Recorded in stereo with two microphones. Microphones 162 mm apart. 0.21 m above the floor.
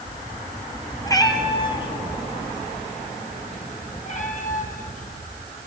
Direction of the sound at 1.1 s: 20° left (ahead or behind).